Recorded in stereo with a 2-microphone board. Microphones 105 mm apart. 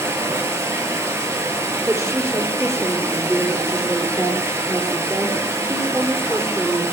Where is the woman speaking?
20° right (ahead or behind), 4 m.